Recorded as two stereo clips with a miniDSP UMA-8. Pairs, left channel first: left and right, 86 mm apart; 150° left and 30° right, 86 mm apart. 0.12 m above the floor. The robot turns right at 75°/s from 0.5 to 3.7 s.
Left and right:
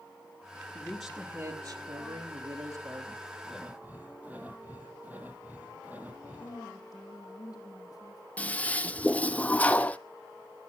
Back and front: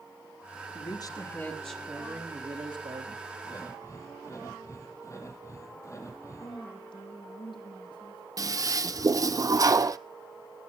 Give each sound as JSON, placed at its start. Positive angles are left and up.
{"t": 0.8, "sound": "a man speaking", "azimuth_deg": 155, "distance_m": 3.5}
{"t": 3.4, "sound": "breathing", "azimuth_deg": 180, "distance_m": 3.0}
{"t": 6.4, "sound": "a woman speaking", "azimuth_deg": 135, "distance_m": 5.5}
{"t": 8.4, "sound": "a toilet flushing", "azimuth_deg": 15, "distance_m": 0.7}